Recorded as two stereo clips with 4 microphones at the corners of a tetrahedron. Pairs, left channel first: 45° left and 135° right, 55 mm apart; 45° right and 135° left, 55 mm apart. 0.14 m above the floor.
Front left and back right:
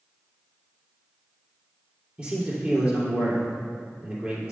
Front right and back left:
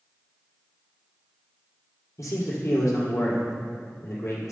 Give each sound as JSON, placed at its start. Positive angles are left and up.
{"t": 2.2, "sound": "a man speaking", "azimuth_deg": -70, "distance_m": 3.0}